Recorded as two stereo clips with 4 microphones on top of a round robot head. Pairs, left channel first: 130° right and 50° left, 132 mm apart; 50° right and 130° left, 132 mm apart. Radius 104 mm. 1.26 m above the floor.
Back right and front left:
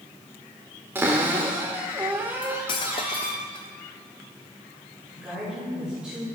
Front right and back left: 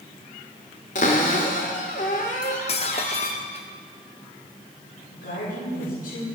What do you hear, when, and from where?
0.9 s a cupboard door: 25° right, 1.1 m
2.4 s cutlery clinking: 85° right, 0.6 m
5.1 s a woman speaking: 35° right, 5 m